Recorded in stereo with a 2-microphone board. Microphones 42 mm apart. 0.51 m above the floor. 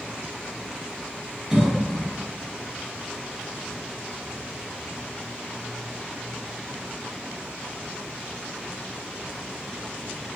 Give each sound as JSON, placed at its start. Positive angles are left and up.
{"t": 1.5, "sound": "a cough", "side_deg": -10, "distance_m": 1.2}